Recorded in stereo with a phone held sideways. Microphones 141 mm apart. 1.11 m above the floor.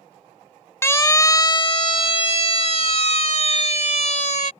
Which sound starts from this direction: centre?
A siren, at 0.8 s.